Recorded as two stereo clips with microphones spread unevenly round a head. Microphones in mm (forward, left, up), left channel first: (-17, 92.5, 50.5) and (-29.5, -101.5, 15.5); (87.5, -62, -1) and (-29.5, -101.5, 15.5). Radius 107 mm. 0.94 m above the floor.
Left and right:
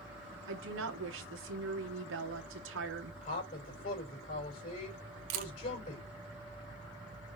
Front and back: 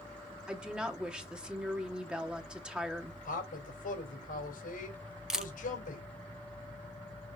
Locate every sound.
0.5 s a woman speaking: 75° right, 1.6 m
3.2 s a man speaking: 30° left, 4 m
5.3 s a camera shutter: 80° right, 0.9 m